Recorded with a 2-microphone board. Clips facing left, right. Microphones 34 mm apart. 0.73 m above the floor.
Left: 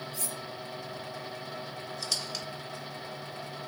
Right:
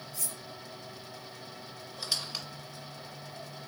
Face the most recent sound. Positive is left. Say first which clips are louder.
# right 1 dB
turn(degrees=-20)  # may be behind; listen again after turning